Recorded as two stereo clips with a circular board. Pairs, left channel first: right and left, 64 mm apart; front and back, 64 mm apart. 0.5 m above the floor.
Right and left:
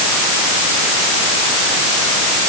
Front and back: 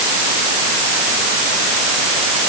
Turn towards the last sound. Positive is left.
No sound to turn to.